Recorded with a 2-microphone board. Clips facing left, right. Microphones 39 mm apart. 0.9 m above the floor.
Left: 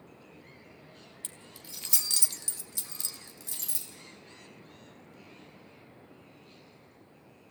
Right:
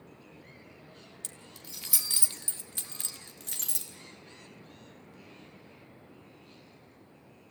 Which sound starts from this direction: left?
Keys jangling, at 1.2 s.